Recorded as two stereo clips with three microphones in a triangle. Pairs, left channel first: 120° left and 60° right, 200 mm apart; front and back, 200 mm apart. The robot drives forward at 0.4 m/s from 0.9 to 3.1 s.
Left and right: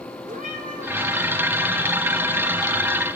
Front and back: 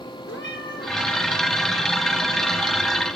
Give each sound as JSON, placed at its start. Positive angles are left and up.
{"t": 0.3, "sound": "a cat meowing", "azimuth_deg": -10, "distance_m": 4.0}